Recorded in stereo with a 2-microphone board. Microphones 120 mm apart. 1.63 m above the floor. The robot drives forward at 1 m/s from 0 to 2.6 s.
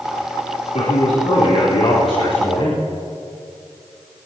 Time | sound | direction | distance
0.7 | a man speaking | 75° left (ahead or behind) | 4 m